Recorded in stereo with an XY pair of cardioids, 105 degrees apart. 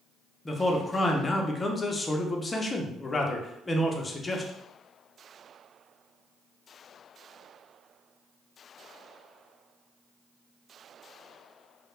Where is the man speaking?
25° left, 0.5 m.